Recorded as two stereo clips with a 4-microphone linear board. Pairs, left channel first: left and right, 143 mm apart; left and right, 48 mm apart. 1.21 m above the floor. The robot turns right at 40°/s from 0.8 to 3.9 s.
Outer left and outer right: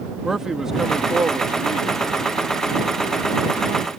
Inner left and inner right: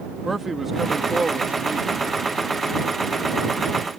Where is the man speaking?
175° right; by 2.1 s 125° right.